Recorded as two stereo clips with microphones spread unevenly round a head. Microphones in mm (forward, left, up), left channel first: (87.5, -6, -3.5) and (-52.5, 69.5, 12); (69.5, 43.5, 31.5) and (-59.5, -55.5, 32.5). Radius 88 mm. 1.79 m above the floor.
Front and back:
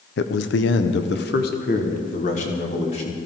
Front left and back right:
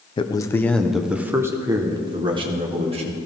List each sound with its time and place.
0.2 s a man speaking: 20° right, 0.9 m; by 3.2 s 90° right, 2 m